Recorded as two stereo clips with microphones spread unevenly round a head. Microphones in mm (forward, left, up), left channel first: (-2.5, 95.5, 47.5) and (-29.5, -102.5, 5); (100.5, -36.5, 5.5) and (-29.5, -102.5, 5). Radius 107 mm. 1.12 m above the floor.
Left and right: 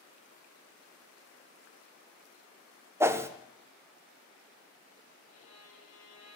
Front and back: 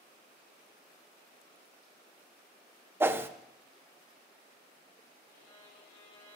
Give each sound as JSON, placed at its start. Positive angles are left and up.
{"t": 3.0, "sound": "a whoosh", "azimuth_deg": -100, "distance_m": 0.5}
{"t": 5.3, "sound": "a violin", "azimuth_deg": 35, "distance_m": 4.0}